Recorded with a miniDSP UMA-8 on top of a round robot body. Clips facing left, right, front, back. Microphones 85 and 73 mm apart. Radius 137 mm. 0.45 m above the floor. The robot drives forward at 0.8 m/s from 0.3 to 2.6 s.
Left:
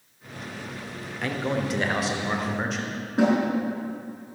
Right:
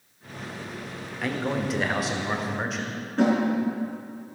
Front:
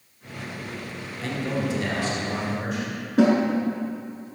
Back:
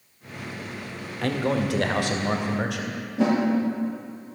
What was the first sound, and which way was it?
A man speaking, straight behind.